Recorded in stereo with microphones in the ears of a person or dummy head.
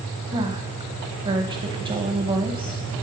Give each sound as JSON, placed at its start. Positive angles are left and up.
{"t": 0.3, "sound": "a woman speaking", "side_deg": -30, "distance_m": 0.7}